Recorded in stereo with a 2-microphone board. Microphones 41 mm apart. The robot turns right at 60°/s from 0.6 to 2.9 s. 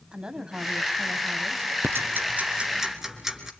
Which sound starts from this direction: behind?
A woman speaking, at 0.1 s.